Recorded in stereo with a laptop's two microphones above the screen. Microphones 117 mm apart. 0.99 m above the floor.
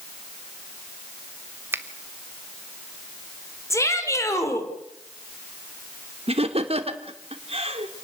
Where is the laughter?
60° right (ahead or behind), 3 m.